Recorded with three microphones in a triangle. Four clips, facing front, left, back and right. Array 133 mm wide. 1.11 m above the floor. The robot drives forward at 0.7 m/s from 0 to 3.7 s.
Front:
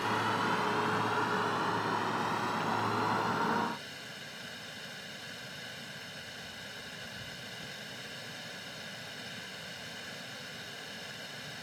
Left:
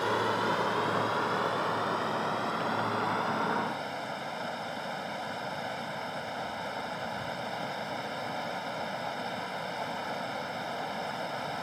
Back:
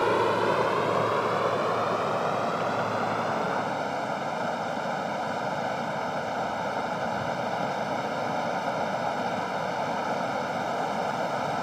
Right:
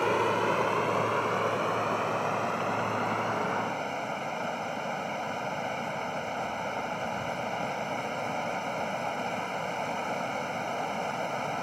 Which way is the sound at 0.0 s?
165° right.